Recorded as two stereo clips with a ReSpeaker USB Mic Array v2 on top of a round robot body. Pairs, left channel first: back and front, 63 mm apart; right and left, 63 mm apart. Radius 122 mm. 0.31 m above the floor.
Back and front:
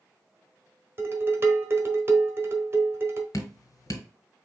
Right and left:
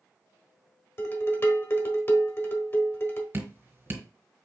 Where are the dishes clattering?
45° right, 1.3 m.